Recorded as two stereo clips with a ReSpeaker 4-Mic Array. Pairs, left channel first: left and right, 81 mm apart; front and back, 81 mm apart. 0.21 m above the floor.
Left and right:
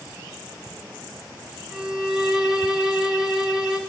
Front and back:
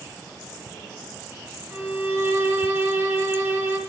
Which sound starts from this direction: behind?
A violin, at 1.7 s.